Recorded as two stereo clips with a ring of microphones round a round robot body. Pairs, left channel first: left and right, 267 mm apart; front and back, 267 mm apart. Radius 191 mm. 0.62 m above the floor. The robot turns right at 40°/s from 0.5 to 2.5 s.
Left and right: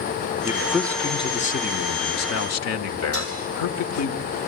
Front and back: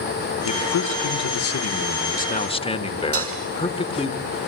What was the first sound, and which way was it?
A man speaking, 10° right.